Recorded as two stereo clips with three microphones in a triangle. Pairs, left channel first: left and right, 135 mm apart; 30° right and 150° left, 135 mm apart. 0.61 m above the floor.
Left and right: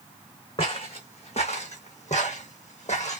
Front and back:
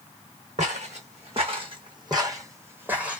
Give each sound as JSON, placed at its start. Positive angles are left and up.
{"t": 0.6, "sound": "footsteps", "azimuth_deg": 130, "distance_m": 1.6}